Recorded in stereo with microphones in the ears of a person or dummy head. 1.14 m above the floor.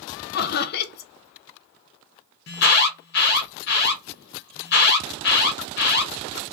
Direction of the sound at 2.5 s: 50° left (ahead or behind).